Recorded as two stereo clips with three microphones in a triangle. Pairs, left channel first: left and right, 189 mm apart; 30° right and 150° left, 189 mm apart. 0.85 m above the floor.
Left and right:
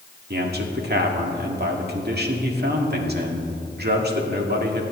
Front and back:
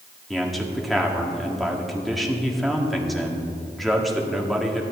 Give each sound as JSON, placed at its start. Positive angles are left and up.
{"t": 0.3, "sound": "a man speaking", "azimuth_deg": -120, "distance_m": 1.8}